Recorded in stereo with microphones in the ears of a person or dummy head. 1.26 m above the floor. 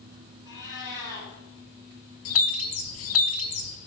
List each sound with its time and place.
0.5 s a cat meowing: 15° left (ahead or behind), 5.5 m
2.2 s a bird: 65° left (ahead or behind), 0.7 m